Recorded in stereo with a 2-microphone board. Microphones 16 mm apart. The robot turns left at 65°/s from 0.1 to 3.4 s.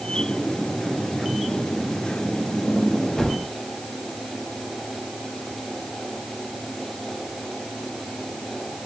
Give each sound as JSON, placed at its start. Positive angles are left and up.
{"t": 3.2, "sound": "a gunshot", "side_deg": 45, "distance_m": 1.3}